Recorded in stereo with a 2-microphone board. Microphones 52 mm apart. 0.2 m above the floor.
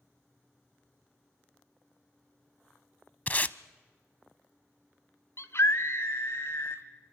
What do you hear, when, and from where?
3.3 s tape being pulled: 30° left (ahead or behind), 0.6 m
5.4 s a scream: 60° left (ahead or behind), 2 m